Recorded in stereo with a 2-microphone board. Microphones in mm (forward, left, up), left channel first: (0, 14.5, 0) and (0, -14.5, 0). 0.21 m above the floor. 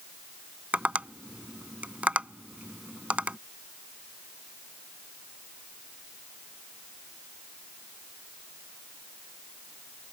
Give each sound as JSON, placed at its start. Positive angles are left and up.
{"t": 0.7, "sound": "tapping", "side_deg": -50}